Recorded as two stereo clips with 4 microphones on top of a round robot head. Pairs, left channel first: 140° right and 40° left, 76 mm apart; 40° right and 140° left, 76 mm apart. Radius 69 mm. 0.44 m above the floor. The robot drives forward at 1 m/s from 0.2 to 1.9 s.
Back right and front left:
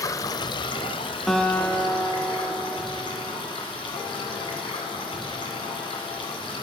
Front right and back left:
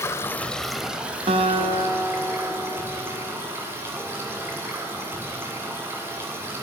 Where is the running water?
95° right, 0.8 m; by 6.6 s 155° right, 1.9 m.